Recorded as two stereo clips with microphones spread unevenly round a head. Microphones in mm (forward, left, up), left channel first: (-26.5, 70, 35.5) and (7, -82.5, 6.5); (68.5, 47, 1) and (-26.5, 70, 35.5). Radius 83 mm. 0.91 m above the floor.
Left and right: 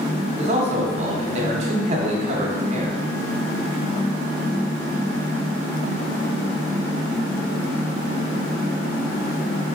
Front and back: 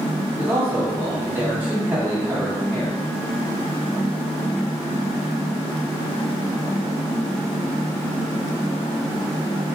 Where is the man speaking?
110° right, 0.9 m.